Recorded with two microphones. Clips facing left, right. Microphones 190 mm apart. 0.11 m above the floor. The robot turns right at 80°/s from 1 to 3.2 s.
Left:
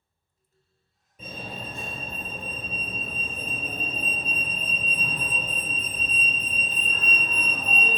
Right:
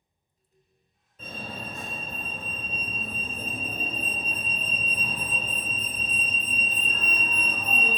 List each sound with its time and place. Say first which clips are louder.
1.2 s a fire alarm: even; 15° left (ahead or behind), 2.5 m; by 8.0 s 10° right (ahead or behind), 2.5 m